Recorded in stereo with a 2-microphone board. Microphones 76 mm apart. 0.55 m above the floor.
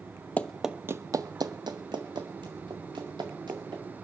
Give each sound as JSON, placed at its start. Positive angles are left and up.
{"t": 0.4, "sound": "running footsteps", "side_deg": 20, "distance_m": 0.6}